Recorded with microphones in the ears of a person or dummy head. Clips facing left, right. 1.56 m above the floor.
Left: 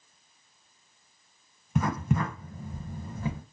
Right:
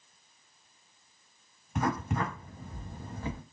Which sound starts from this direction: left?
Writing, at 1.8 s.